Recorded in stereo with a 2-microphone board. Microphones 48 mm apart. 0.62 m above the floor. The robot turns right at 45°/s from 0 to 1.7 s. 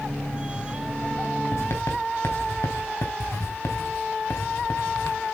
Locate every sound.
1.5 s writing: 75° left (ahead or behind), 3.5 m; by 5.2 s 70° left (ahead or behind), 3.5 m